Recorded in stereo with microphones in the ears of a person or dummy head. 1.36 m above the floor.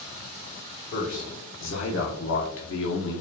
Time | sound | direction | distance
0.9 | a man speaking | 45° left (ahead or behind) | 1.4 m